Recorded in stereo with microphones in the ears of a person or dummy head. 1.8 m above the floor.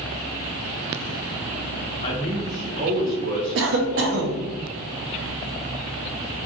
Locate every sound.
2.0 s a man speaking: 20° left (ahead or behind), 0.5 m; by 4.3 s 60° right (ahead or behind), 1.2 m
3.5 s a cough: 60° right (ahead or behind), 0.5 m